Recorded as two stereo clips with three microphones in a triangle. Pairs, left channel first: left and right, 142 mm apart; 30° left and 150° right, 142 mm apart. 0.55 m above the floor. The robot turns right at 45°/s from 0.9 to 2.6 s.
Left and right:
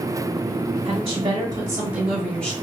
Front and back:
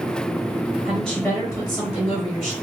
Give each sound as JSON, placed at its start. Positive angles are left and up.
{"t": 0.8, "sound": "a woman speaking", "azimuth_deg": -60, "distance_m": 1.1}